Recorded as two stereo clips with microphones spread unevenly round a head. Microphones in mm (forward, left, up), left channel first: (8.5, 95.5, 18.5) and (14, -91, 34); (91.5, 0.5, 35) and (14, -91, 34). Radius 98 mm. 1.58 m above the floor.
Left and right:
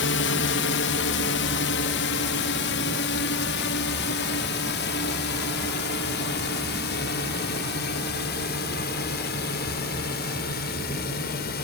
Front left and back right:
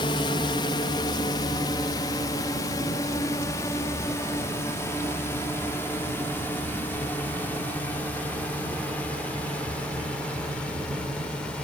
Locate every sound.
0.0 s a drone: 110° left; by 11.7 s 135° left